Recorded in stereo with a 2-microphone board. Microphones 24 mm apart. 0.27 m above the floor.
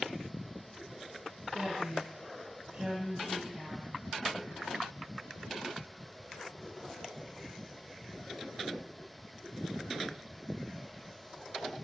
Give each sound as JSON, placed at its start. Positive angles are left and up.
{"t": 1.5, "sound": "a woman speaking", "side_deg": -65, "distance_m": 2.0}